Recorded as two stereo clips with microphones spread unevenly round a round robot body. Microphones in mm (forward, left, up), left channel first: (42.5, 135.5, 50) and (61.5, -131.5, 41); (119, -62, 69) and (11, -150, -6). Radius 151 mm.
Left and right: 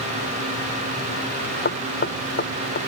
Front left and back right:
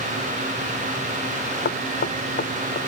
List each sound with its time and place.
1.6 s knocking: 40° left